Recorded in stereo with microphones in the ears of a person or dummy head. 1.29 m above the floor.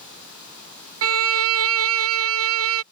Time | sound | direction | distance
1.0 | a violin | 75° right (ahead or behind) | ?